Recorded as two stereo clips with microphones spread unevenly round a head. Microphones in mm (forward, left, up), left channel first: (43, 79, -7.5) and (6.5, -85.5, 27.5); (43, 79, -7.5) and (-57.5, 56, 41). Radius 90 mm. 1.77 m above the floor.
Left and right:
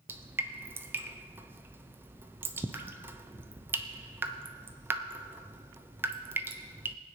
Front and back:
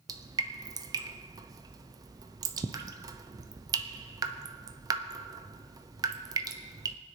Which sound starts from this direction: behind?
Dripping, at 0.1 s.